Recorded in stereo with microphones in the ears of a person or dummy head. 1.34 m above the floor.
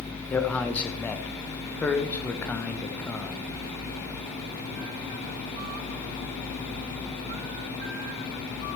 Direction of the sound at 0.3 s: 10° left (ahead or behind).